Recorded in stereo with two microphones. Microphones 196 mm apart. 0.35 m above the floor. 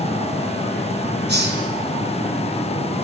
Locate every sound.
1.3 s a hiss: 60° right (ahead or behind), 4 m